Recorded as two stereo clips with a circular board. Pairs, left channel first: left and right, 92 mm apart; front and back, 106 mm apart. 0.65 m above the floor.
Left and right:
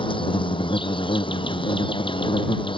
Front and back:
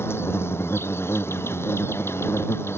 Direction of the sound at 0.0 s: 65° left.